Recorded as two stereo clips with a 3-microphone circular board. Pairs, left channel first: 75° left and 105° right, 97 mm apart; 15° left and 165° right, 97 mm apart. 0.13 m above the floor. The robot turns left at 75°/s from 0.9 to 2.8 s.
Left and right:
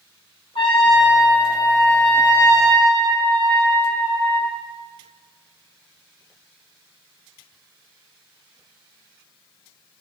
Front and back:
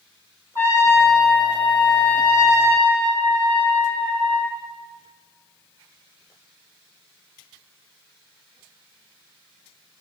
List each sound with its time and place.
0.6 s a trumpet: 75° left, 2 m; by 4.5 s 65° right, 2 m